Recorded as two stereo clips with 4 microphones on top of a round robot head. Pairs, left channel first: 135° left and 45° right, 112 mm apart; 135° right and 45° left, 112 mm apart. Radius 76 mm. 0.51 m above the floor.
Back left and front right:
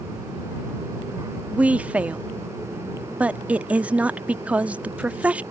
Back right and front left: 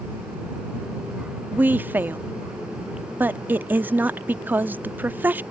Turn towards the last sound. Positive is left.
turn(degrees=10)